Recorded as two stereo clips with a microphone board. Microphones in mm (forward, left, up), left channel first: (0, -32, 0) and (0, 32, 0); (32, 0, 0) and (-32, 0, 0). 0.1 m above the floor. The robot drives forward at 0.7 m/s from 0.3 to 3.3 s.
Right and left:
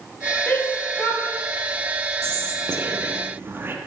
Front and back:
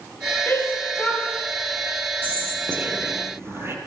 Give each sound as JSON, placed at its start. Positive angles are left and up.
{"t": 0.5, "sound": "a shout", "azimuth_deg": -40, "distance_m": 2.5}
{"t": 2.2, "sound": "whispering", "azimuth_deg": 120, "distance_m": 2.0}